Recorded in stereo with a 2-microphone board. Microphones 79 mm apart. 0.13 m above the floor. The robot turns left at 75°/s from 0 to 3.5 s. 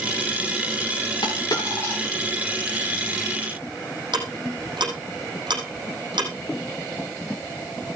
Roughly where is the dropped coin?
Left.